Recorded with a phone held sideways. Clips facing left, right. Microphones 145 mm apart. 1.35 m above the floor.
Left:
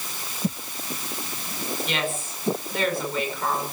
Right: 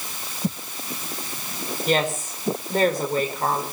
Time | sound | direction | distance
1.9 | a woman speaking | 45° right (ahead or behind) | 5.5 m